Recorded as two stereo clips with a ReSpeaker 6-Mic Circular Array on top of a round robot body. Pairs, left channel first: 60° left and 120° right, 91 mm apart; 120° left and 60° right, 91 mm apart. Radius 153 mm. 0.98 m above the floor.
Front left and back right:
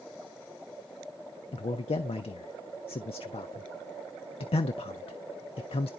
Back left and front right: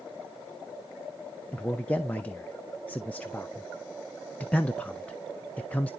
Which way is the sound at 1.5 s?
45° left.